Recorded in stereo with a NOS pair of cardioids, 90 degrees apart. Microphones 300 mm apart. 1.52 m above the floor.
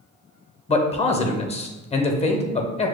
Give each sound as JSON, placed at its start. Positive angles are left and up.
{"t": 0.7, "sound": "a man speaking", "azimuth_deg": 20, "distance_m": 0.8}